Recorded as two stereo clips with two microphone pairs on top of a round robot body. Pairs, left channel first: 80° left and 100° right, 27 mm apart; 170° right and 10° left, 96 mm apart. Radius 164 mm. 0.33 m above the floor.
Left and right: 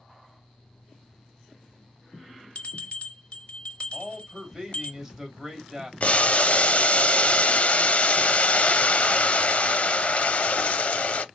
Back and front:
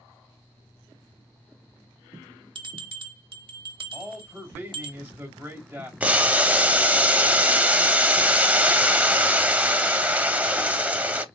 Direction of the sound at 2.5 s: 35° left.